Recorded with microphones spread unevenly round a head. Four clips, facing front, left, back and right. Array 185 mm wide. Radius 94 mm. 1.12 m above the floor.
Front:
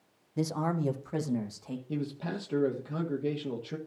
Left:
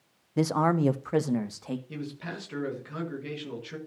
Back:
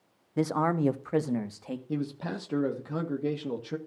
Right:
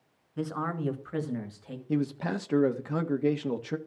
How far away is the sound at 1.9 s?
About 1.5 m.